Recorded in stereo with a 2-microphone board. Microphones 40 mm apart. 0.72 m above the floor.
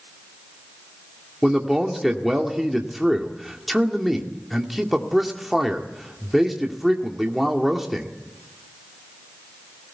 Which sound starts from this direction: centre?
A man speaking, at 1.4 s.